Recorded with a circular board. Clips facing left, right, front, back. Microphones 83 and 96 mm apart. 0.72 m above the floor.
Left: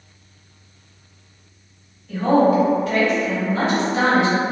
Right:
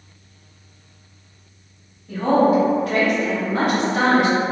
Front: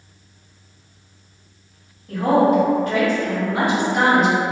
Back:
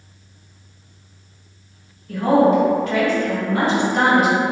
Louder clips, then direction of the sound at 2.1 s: Even, back 1 dB; 35° right.